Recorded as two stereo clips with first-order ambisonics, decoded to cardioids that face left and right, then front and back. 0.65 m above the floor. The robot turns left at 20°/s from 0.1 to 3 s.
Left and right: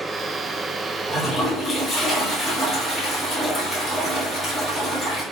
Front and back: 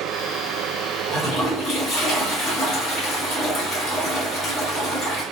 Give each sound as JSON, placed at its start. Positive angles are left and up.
{"t": 1.1, "sound": "a toilet flushing", "azimuth_deg": 40, "distance_m": 1.2}